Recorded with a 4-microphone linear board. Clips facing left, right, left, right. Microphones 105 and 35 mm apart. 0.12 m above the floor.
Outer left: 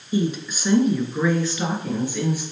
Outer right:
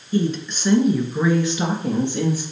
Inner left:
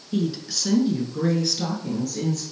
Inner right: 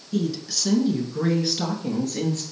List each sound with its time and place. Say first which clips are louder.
0.1 s a woman speaking: outer right 2 dB, even; 15° left (ahead or behind), 1.2 m; by 2.4 s 35° right (ahead or behind), 1.8 m